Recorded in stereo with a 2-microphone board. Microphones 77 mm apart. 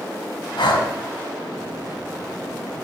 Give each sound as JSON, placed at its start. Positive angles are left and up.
{"t": 0.6, "sound": "breathing", "side_deg": 80, "distance_m": 3.5}